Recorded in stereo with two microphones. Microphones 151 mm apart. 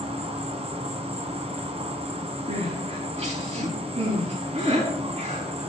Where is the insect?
40° right (ahead or behind), 1.4 m.